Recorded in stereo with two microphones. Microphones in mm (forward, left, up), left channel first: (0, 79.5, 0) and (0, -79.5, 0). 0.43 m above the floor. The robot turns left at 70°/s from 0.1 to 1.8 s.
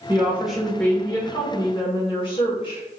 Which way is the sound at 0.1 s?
145° right.